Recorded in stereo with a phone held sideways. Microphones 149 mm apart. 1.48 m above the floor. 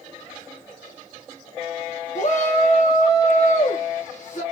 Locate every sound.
2.1 s a shout: 55° left (ahead or behind), 0.8 m